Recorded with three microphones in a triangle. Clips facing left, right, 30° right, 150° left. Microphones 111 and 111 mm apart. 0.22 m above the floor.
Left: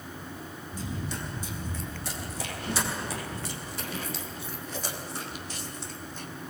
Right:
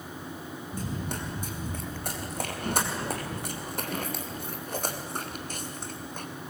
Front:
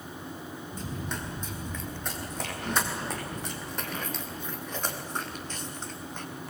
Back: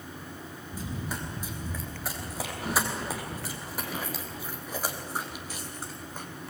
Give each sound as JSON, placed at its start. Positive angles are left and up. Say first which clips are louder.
{"t": 0.7, "sound": "running footsteps", "louder": "right 1 dB, back 1 dB", "azimuth_deg": -125, "distance_m": 5.5}